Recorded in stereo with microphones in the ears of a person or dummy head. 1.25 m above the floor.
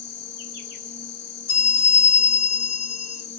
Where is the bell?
65° left (ahead or behind), 3 m.